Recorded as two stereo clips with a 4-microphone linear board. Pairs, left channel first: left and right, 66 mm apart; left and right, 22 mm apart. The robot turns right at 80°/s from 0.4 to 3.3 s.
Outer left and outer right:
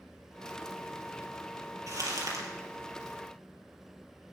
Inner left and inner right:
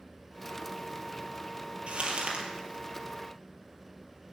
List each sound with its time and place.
1.9 s crumpling: 115° right, 4 m; by 2.5 s 65° right, 4 m